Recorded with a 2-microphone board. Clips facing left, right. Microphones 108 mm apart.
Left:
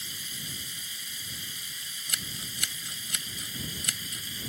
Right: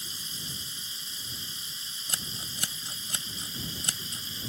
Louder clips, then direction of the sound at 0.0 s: Even; 30° right (ahead or behind).